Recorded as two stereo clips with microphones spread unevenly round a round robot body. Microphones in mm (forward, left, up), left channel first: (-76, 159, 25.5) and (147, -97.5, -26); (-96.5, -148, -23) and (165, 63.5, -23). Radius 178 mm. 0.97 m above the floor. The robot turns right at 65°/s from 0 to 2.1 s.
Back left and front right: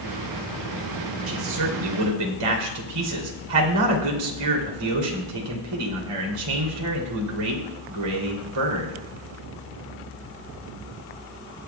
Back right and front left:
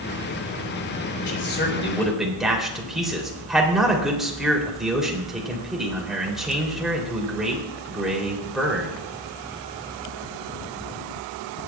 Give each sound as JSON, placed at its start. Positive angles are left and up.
{"t": 1.3, "sound": "a man speaking", "azimuth_deg": -105, "distance_m": 3.0}